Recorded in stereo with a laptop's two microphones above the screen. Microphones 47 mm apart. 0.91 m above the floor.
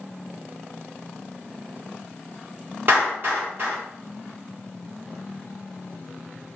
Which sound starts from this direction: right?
A clap, at 2.9 s.